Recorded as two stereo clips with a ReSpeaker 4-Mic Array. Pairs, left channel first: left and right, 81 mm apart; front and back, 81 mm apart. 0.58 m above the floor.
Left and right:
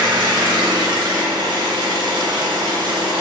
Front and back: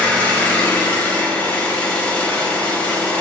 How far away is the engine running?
About 0.8 m.